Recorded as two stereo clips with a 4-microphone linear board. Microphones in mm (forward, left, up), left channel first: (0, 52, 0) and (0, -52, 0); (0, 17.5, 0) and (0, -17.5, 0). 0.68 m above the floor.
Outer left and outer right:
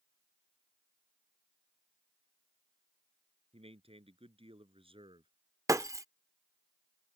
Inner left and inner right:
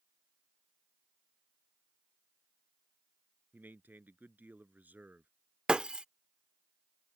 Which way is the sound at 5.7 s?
30° right (ahead or behind).